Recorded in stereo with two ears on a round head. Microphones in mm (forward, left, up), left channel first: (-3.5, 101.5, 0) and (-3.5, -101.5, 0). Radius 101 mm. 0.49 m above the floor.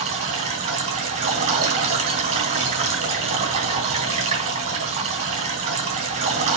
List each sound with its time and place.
0.0 s running water: 30° right (ahead or behind), 3.5 m